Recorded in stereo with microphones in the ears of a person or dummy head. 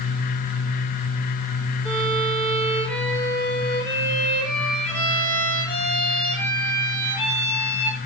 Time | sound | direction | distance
1.9 | a violin | 5° left (ahead or behind) | 5 m